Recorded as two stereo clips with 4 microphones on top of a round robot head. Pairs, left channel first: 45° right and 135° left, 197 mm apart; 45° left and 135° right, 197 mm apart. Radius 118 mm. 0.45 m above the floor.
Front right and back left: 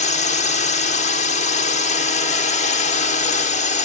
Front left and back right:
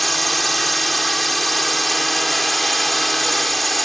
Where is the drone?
45° right.